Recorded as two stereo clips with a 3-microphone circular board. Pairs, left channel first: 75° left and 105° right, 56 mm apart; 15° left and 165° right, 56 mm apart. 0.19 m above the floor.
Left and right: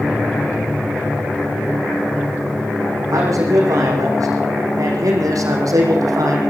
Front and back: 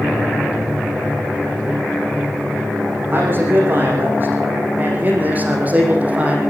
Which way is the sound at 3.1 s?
115° right.